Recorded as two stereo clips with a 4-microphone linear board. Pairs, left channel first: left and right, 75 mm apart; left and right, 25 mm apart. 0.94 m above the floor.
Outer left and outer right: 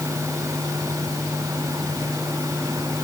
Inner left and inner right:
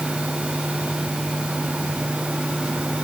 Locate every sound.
Only background noise.